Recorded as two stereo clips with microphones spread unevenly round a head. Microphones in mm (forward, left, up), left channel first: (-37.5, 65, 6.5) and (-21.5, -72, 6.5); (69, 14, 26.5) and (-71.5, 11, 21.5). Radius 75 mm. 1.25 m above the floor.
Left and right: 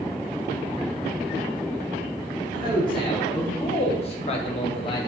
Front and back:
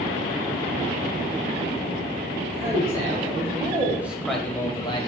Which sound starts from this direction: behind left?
A man speaking, at 2.5 s.